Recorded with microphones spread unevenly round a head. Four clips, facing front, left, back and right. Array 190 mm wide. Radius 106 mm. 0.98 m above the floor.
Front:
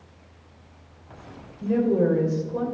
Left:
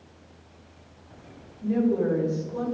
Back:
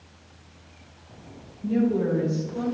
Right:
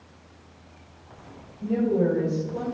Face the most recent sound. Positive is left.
turn(degrees=-25)